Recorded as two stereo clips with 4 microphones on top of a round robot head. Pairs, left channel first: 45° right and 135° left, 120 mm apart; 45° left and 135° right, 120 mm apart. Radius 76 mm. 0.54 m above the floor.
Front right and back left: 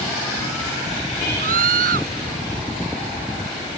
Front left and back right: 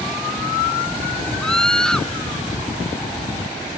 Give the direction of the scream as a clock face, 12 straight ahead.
8 o'clock.